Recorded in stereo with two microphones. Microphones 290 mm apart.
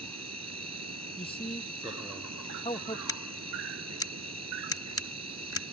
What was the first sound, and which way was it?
An insect, 65° right (ahead or behind).